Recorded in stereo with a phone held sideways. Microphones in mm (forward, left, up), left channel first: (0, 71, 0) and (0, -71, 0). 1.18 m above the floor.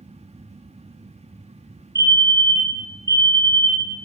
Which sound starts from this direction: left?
A fire alarm, at 1.9 s.